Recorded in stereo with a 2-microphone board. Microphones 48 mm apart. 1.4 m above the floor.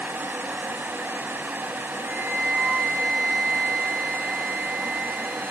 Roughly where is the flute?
Right.